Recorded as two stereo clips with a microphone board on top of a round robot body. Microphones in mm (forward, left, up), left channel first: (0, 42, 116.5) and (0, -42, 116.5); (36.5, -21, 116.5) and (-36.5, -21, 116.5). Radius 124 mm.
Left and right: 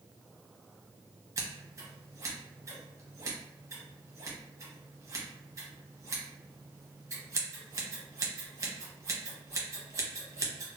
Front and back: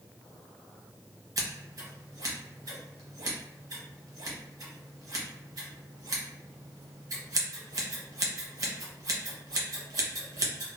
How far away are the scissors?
About 0.9 m.